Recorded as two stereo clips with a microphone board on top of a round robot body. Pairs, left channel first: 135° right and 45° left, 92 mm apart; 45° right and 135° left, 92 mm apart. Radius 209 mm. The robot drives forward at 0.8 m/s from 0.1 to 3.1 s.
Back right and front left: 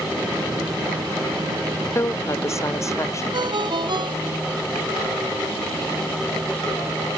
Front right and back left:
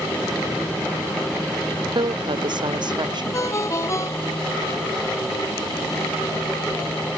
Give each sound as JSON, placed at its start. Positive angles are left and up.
{"t": 1.9, "sound": "a woman speaking", "azimuth_deg": 165}
{"t": 3.3, "sound": "a ringtone", "azimuth_deg": 10}